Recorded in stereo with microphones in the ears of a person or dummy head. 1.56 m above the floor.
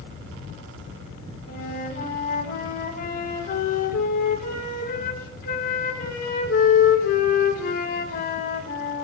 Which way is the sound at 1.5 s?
60° left (ahead or behind).